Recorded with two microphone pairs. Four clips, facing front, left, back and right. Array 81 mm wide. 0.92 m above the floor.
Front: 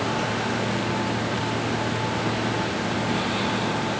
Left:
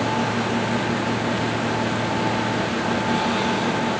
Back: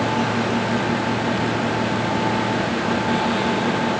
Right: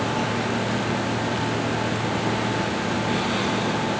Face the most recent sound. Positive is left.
No sound to turn to.